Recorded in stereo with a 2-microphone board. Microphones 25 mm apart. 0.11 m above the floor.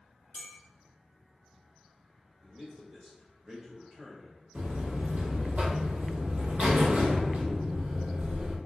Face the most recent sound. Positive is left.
turn(degrees=-60)  # may be behind; listen again after turning